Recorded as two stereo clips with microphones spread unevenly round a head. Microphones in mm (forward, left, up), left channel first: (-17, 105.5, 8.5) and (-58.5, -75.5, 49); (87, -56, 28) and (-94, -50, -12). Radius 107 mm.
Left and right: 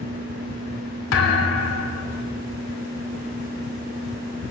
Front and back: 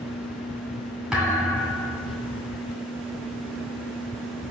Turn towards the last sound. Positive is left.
turn(degrees=85)